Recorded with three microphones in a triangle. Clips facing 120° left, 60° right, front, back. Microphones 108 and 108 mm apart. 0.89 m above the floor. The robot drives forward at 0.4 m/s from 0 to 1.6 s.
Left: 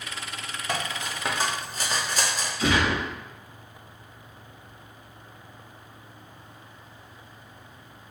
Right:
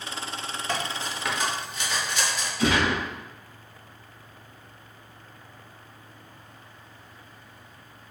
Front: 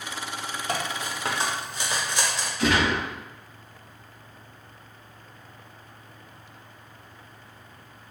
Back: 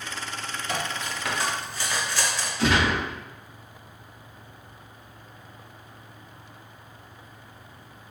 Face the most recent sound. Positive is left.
turn(degrees=-120)